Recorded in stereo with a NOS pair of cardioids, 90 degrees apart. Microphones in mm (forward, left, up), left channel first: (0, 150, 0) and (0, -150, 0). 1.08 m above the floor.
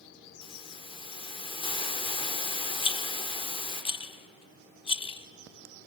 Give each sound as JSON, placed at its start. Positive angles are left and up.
{"t": 0.4, "sound": "a hiss", "azimuth_deg": 20, "distance_m": 3.0}
{"t": 2.8, "sound": "a rattle", "azimuth_deg": 20, "distance_m": 0.9}